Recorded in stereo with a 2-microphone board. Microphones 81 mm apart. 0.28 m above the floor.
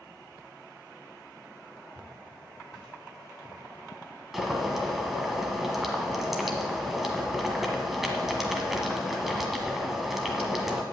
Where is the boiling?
5° right (ahead or behind), 1.6 m.